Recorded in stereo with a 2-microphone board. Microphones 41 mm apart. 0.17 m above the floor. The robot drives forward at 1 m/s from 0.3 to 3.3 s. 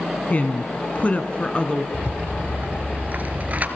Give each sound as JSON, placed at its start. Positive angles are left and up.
{"t": 0.3, "sound": "a woman speaking", "side_deg": 40, "distance_m": 1.2}
{"t": 1.9, "sound": "a rattle", "side_deg": -50, "distance_m": 1.1}